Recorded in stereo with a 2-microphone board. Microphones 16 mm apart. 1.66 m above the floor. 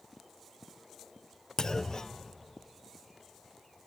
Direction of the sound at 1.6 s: 40° left (ahead or behind).